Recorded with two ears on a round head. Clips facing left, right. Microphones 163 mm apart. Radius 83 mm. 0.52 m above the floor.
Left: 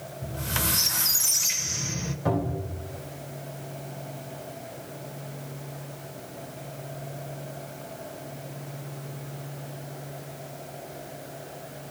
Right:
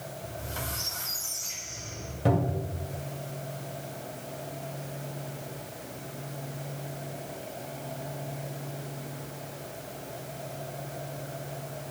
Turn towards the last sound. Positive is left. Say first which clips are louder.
# right 1 dB
turn(degrees=-35)  # may be behind; listen again after turning